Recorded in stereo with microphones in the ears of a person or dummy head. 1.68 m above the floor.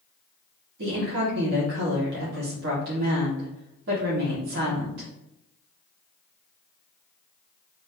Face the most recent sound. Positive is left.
turn(degrees=-65)  # may be behind; listen again after turning